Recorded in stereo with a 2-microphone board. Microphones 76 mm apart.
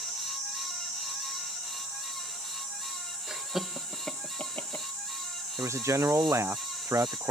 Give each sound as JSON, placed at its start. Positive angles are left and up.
{"t": 3.3, "sound": "laughter", "side_deg": -15}
{"t": 5.6, "sound": "a man speaking", "side_deg": -45}